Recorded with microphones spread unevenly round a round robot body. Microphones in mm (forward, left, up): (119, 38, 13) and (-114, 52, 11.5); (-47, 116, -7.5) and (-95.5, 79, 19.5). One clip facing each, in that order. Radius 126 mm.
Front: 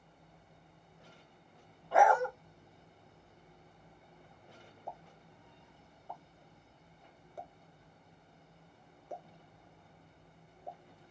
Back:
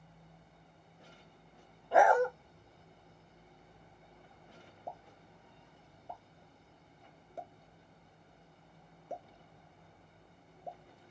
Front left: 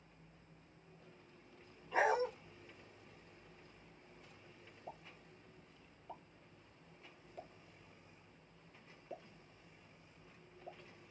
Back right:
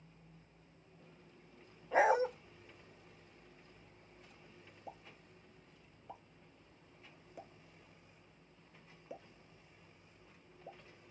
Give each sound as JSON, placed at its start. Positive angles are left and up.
{"t": 1.9, "sound": "a dog barking", "azimuth_deg": -115, "distance_m": 0.7}
{"t": 4.9, "sound": "a pop", "azimuth_deg": 115, "distance_m": 0.9}